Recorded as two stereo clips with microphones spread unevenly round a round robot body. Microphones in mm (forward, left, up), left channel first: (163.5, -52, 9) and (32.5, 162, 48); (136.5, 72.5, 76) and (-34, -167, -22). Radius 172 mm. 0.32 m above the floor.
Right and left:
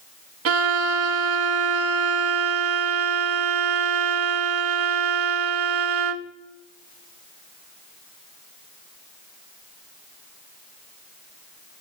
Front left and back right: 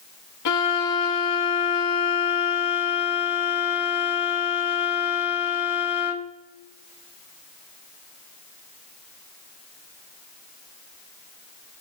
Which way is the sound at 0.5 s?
90° left.